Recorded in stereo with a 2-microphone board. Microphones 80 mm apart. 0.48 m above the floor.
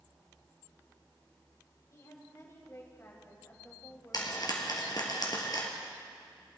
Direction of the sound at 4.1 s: 55° left (ahead or behind).